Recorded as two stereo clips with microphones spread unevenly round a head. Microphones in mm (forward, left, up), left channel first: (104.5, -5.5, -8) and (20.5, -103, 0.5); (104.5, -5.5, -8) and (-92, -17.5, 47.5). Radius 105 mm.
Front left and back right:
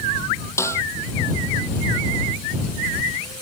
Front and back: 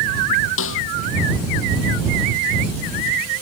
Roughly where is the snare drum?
Ahead.